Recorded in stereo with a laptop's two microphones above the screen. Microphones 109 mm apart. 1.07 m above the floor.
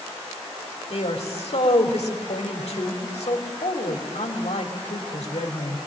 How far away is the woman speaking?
About 3 m.